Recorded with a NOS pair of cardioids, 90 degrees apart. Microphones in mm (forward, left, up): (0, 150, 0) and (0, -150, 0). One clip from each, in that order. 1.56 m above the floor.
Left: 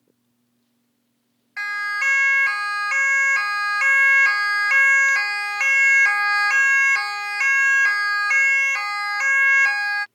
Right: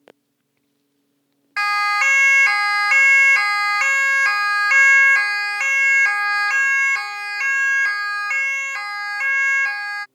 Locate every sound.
1.6 s a siren: 65° right; by 10.1 s 20° left